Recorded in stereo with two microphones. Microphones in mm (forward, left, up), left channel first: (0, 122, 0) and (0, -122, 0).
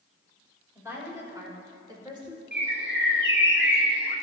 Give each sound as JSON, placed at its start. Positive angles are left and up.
{"t": 0.8, "sound": "a woman speaking", "side_deg": -10, "distance_m": 3.5}
{"t": 2.5, "sound": "a bird", "side_deg": -45, "distance_m": 1.3}